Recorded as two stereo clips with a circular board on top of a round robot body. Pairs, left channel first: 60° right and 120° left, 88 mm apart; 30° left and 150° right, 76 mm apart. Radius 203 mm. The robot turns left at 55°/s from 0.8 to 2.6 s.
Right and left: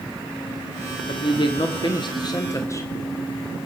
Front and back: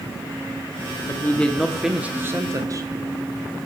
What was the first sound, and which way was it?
A woman speaking, 25° right.